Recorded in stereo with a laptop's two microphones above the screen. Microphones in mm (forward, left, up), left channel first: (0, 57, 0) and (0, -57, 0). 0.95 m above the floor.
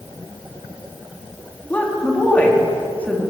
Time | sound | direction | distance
1.7 | a woman speaking | 15° left (ahead or behind) | 1.7 m